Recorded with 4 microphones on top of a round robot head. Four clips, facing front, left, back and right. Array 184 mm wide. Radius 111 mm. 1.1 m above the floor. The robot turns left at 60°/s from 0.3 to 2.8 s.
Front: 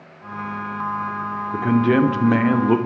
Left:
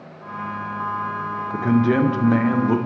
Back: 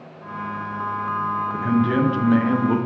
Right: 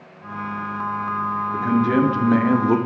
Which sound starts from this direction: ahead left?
A man speaking, at 1.5 s.